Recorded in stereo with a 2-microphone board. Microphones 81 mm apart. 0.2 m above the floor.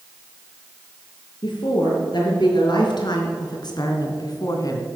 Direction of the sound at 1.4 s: 70° left (ahead or behind).